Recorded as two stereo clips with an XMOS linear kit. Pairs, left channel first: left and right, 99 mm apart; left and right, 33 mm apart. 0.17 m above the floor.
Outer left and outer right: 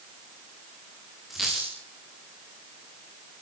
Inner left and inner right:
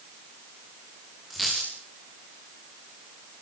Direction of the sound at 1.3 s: Centre (ahead or behind).